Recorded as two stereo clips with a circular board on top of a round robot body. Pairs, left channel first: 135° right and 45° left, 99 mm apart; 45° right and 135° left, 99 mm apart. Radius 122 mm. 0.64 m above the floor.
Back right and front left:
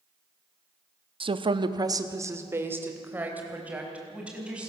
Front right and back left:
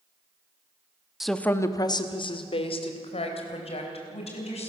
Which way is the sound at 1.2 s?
50° left.